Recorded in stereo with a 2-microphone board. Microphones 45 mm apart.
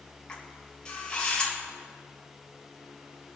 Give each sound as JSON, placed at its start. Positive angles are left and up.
{"t": 0.3, "sound": "a camera shutter", "side_deg": 20, "distance_m": 4.0}